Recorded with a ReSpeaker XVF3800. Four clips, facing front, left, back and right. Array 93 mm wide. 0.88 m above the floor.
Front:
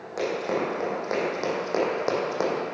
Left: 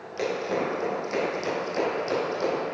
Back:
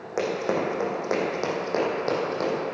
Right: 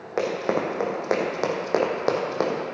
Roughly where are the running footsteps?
Right.